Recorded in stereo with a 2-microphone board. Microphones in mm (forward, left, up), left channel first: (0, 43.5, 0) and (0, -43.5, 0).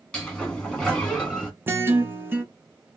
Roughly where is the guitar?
Right.